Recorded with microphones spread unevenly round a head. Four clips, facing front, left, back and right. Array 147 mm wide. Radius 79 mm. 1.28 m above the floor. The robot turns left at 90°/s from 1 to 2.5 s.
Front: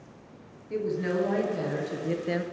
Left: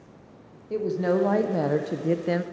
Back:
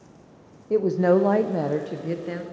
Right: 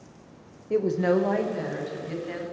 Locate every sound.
0.7 s a woman speaking: 165° right, 0.8 m; by 2.4 s 65° left, 0.8 m